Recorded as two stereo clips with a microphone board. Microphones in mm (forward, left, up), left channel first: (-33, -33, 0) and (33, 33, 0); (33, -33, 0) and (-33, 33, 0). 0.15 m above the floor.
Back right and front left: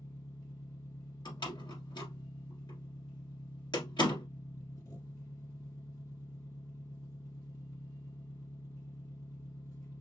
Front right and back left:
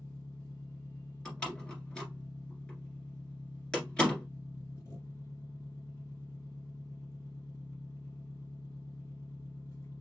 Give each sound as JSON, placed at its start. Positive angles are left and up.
{"t": 0.0, "sound": "an engine running", "azimuth_deg": -100, "distance_m": 1.7}
{"t": 1.2, "sound": "a door slam", "azimuth_deg": -125, "distance_m": 1.7}